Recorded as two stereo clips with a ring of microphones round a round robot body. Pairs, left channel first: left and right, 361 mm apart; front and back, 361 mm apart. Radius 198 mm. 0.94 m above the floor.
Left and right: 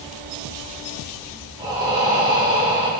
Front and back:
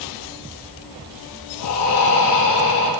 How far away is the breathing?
About 4 m.